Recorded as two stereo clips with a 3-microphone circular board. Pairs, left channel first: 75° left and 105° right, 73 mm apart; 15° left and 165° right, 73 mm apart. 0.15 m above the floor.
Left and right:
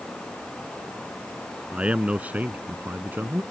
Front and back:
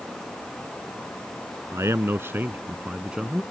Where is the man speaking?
170° right; by 3.4 s 85° right.